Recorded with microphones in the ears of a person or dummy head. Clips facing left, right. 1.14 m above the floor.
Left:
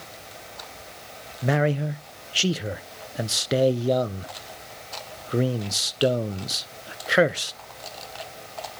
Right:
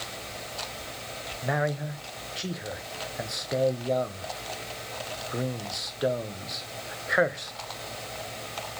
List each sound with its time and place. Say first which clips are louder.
1.4 s a man speaking: left 6 dB; 40° left (ahead or behind), 0.6 m